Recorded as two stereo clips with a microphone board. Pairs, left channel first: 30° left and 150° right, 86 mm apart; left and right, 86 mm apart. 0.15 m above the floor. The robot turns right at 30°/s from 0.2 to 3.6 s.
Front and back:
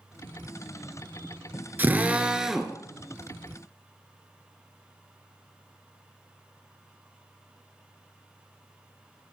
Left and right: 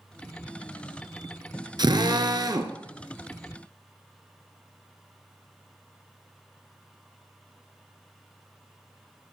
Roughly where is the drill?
Right.